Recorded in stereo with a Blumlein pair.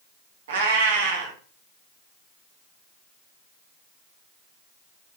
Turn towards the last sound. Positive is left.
turn(degrees=-60)